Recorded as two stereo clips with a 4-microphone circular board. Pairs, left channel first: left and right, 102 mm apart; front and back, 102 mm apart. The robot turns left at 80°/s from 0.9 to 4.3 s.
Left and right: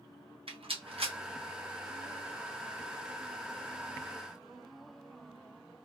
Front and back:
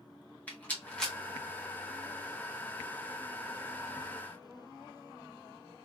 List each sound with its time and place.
0.5 s a rattle: 75° right, 1.1 m; by 1.1 s 95° right, 1.1 m